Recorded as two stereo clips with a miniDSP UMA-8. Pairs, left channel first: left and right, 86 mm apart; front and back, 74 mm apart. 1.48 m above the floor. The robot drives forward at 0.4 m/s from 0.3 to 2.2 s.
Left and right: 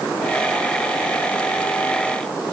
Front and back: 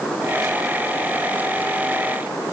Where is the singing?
No singing in this recording.